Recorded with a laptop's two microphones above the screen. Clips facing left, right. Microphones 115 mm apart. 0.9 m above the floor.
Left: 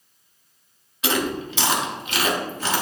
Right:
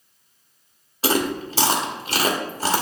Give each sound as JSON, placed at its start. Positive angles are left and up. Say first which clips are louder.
{"t": 1.0, "sound": "chewing", "louder": "right 2 dB", "side_deg": -35, "distance_m": 1.1}